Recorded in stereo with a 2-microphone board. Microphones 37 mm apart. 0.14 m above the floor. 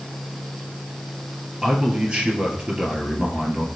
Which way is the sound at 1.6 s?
25° right (ahead or behind).